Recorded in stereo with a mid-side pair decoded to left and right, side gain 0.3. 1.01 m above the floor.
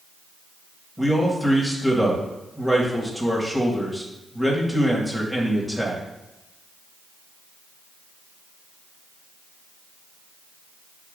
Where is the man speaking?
10° right, 1.7 m.